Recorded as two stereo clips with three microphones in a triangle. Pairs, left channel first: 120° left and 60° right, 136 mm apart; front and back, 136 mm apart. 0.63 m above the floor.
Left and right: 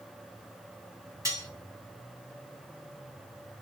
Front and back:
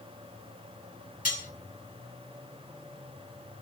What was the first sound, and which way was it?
Cutlery clinking, straight ahead.